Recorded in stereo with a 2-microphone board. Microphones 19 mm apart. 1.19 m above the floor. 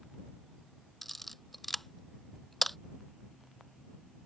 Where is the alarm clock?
No alarm clock in this recording.